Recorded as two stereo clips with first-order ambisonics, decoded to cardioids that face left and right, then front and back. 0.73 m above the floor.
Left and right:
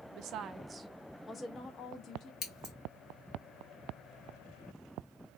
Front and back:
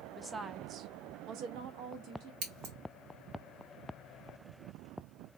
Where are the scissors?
145° left, 1.6 m.